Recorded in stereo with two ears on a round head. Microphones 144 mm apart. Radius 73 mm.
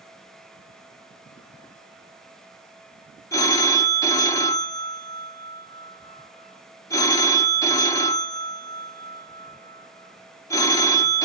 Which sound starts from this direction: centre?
A phone ringing, at 3.3 s.